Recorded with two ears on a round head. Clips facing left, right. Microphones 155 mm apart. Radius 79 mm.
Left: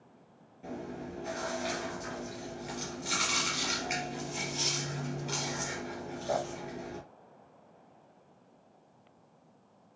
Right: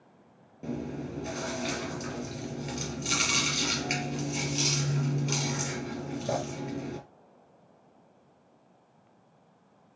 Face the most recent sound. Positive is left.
turn(degrees=-45)  # may be behind; listen again after turning